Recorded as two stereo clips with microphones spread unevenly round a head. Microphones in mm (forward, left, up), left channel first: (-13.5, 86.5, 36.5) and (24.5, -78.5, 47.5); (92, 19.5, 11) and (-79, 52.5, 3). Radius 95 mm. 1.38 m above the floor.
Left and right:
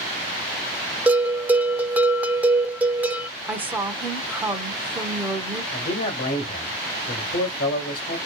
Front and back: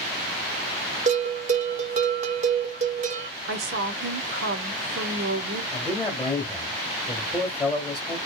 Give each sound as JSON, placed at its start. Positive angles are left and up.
{"t": 1.1, "sound": "a bell", "azimuth_deg": -160, "distance_m": 0.5}
{"t": 3.5, "sound": "a woman speaking", "azimuth_deg": -160, "distance_m": 0.7}
{"t": 5.7, "sound": "a man speaking", "azimuth_deg": 70, "distance_m": 1.3}